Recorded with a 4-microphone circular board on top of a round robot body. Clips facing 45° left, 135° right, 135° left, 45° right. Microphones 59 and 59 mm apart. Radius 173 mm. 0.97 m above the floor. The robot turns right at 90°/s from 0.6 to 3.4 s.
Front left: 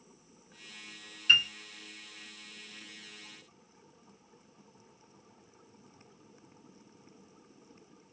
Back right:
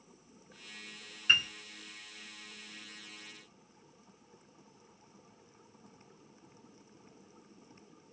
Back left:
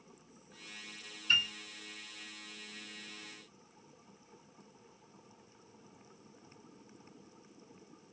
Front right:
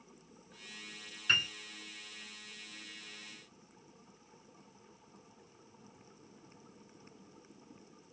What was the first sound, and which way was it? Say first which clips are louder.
A piano: front left 3 dB, even; 65° right.